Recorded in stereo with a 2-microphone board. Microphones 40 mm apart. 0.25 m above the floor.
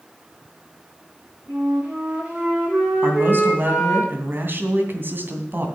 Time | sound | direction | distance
1.5 | a flute | 30° right (ahead or behind) | 7.5 m
3.0 | a man speaking | 50° right (ahead or behind) | 2.5 m